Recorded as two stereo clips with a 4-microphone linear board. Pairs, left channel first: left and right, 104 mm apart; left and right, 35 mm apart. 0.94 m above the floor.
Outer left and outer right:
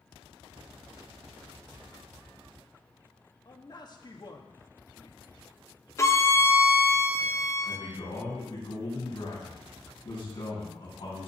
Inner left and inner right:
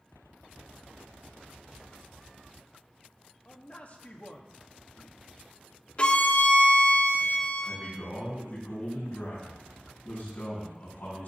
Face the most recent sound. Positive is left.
turn(degrees=55)  # may be behind; listen again after turning